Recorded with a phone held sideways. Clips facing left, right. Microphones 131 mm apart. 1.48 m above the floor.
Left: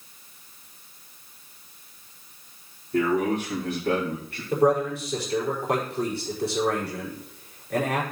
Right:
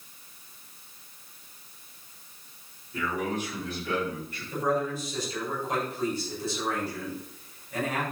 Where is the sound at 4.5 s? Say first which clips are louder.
Left 7 dB; 70° left (ahead or behind), 5 m.